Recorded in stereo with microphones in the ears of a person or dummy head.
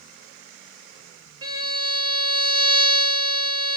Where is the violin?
25° right (ahead or behind), 1.2 m.